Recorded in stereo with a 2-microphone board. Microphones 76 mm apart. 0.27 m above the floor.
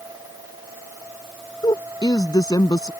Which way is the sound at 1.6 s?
60° left (ahead or behind).